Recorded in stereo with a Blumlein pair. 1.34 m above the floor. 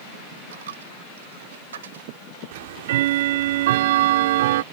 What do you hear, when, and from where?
0.5 s a dropped coin: 65° right
2.5 s ticking: 55° right